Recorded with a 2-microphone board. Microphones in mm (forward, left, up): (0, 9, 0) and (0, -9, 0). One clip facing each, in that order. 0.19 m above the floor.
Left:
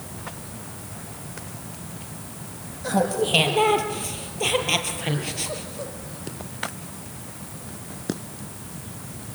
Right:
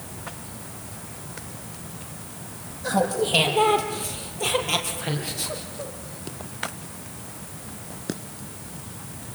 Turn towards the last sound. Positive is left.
turn(degrees=25)  # may be behind; listen again after turning